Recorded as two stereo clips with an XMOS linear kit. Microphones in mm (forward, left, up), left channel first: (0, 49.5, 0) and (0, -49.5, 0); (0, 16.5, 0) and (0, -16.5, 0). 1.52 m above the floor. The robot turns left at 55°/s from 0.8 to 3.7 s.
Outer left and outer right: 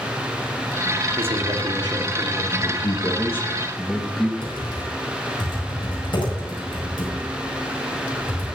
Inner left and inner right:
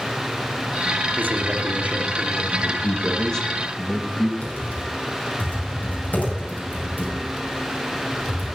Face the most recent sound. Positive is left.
turn(degrees=65)  # may be behind; listen again after turning